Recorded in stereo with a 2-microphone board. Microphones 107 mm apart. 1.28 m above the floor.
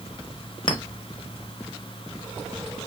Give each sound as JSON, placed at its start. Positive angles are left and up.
{"t": 0.7, "sound": "a clink", "side_deg": 45, "distance_m": 0.8}